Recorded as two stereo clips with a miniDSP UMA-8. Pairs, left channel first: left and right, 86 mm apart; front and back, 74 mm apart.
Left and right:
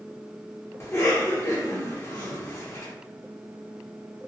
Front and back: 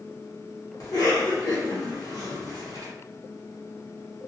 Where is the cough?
35° left, 1.5 m.